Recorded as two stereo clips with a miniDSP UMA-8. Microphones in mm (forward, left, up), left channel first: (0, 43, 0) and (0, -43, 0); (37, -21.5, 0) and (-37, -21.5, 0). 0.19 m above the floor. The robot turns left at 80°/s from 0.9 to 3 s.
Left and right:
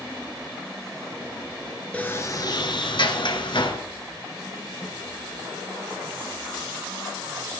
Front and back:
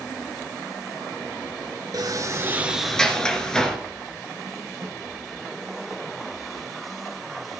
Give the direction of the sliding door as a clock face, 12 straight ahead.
7 o'clock.